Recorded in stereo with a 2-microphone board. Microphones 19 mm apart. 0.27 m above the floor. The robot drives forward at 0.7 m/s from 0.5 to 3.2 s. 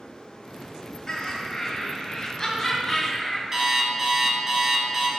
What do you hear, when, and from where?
1.1 s laughter: 30° left (ahead or behind), 1.1 m; by 3.4 s 20° left (ahead or behind), 1.8 m
3.5 s an alarm clock: 35° right (ahead or behind), 1.3 m